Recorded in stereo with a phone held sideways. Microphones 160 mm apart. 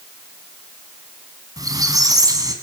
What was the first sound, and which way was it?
A squeak, 20° right (ahead or behind).